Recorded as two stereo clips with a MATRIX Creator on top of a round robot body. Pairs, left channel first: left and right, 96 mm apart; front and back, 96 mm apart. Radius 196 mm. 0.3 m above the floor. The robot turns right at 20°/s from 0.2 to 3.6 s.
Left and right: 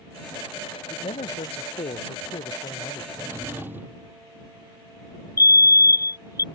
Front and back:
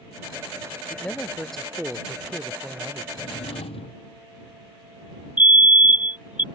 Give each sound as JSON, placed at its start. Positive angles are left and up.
{"t": 0.9, "sound": "a man speaking", "azimuth_deg": 75}
{"t": 3.1, "sound": "a drawer", "azimuth_deg": -30}
{"t": 5.4, "sound": "a fire alarm", "azimuth_deg": 115}